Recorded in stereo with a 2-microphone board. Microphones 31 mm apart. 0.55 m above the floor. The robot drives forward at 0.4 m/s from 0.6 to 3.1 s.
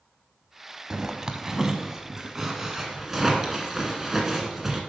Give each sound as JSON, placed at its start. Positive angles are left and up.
{"t": 0.9, "sound": "a zipper", "side_deg": -25, "distance_m": 0.8}